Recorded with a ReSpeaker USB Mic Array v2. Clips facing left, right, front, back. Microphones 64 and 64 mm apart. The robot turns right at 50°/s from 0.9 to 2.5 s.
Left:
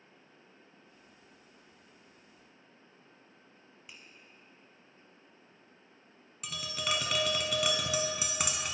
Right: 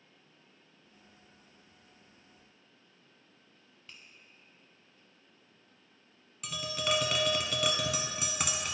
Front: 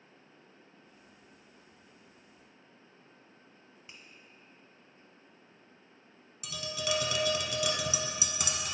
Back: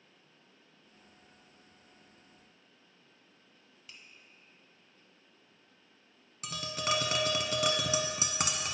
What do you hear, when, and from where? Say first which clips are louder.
3.9 s a finger snap: even, even; 30° left, 0.9 m
6.4 s tapping: right 3 dB, back 1 dB; straight behind, 0.8 m